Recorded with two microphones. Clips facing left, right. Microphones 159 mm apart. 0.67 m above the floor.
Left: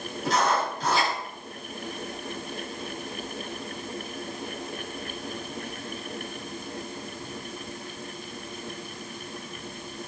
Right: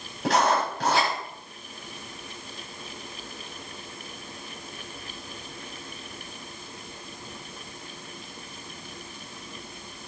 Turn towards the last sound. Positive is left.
turn(degrees=-80)